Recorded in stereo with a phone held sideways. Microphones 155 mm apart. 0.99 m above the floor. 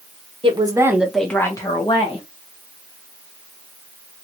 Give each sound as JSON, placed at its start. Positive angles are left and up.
{"t": 0.4, "sound": "a woman speaking", "side_deg": -35, "distance_m": 0.9}